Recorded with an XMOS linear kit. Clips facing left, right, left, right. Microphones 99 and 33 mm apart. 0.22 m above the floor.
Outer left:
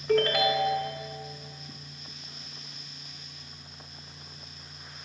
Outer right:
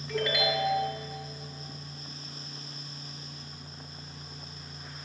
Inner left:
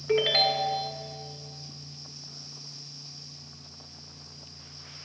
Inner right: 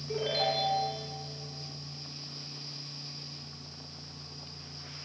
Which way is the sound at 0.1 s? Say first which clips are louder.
Outer left 6 dB, inner left 7 dB; 65° left (ahead or behind).